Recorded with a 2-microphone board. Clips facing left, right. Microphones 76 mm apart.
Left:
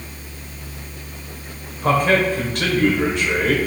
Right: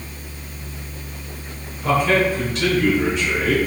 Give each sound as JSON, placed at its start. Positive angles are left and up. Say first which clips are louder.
{"t": 1.8, "sound": "a man speaking", "louder": "left 1 dB", "side_deg": 55, "distance_m": 1.9}